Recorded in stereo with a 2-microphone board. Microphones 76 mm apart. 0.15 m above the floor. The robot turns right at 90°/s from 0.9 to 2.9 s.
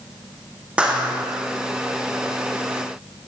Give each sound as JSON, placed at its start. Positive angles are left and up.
{"t": 0.8, "sound": "a clap", "azimuth_deg": -165, "distance_m": 8.0}